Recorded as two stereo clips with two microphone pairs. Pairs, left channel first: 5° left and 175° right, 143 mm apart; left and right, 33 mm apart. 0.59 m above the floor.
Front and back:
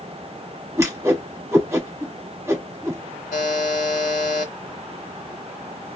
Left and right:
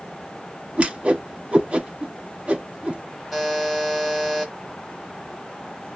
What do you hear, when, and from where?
0.8 s a whoosh: 115° right, 1.1 m
3.3 s a buzzer: straight ahead, 0.9 m